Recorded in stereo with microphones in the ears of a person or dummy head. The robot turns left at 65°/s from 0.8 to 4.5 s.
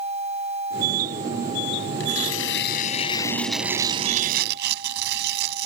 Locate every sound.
2.0 s tearing paper: 100° left; by 5.7 s 65° right